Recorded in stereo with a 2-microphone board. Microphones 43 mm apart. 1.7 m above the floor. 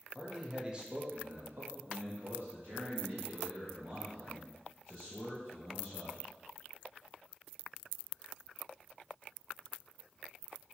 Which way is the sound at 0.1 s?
5° right (ahead or behind).